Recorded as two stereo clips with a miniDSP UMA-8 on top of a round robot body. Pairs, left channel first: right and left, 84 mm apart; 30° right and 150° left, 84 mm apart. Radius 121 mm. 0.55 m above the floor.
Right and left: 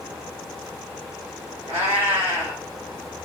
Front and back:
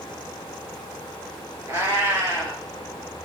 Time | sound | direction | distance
1.7 | a cat meowing | 90° left | 3 m